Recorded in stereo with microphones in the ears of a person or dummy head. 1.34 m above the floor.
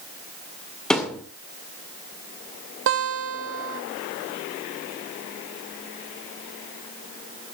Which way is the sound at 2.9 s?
70° right (ahead or behind).